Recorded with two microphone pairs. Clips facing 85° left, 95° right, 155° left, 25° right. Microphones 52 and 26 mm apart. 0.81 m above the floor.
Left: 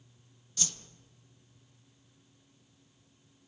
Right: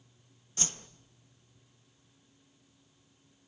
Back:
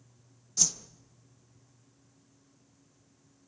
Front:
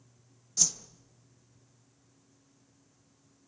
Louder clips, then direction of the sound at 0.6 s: Right 2 dB, back 1 dB; 125° right.